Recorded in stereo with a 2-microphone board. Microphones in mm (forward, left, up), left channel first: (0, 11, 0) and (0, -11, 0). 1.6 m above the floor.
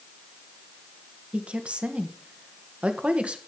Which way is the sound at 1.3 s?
60° right (ahead or behind).